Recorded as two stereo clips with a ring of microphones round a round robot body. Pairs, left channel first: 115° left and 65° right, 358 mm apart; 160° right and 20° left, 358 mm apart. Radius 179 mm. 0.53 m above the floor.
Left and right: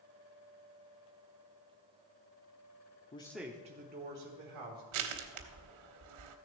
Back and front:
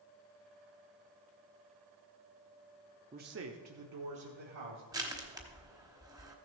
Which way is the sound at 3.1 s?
65° left.